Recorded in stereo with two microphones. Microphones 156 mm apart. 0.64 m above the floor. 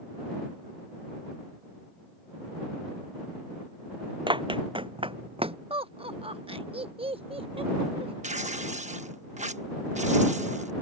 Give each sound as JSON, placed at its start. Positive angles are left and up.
{"t": 4.3, "sound": "running footsteps", "side_deg": -30}
{"t": 5.7, "sound": "laughter", "side_deg": -35}
{"t": 8.2, "sound": "tearing paper", "side_deg": -50}